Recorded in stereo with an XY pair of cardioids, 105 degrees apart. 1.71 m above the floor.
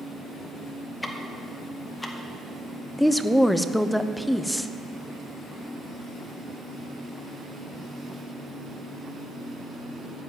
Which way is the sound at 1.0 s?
15° left.